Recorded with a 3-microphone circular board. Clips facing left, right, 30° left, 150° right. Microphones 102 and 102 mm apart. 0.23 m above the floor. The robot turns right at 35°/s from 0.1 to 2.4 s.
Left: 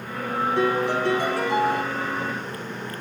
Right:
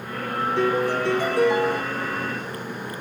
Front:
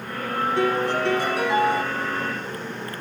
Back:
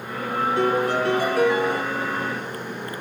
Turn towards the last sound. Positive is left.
turn(degrees=140)